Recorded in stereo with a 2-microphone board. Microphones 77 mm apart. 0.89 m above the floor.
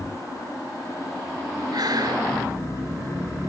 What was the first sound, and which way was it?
Breathing, 60° right (ahead or behind).